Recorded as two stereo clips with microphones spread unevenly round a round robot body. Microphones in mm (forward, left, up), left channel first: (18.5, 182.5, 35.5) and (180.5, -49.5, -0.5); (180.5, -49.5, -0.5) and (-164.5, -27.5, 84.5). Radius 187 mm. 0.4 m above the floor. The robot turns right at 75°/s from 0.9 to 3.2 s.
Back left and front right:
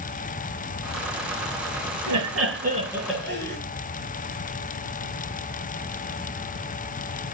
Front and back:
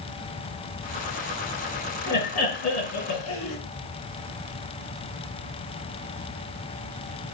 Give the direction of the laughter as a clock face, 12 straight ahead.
1 o'clock.